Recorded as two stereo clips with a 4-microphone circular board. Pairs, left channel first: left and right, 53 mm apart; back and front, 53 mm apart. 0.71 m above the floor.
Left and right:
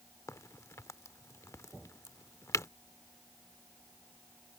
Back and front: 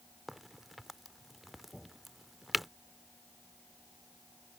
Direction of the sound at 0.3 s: 90° left.